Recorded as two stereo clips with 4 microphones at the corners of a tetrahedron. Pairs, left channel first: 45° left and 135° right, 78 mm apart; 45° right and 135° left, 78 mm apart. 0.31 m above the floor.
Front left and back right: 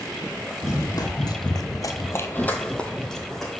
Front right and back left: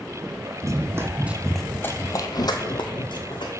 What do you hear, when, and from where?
0.6 s running footsteps: 90° left, 0.9 m; by 3.5 s 40° right, 1.3 m